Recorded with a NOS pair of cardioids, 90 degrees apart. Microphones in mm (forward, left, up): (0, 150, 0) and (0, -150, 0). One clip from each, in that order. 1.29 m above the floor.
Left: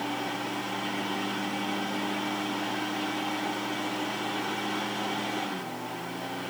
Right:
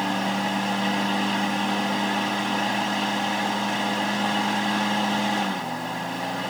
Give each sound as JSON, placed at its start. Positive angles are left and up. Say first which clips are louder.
{"t": 0.0, "sound": "a fan", "louder": "right 7 dB", "azimuth_deg": -70, "distance_m": 1.6}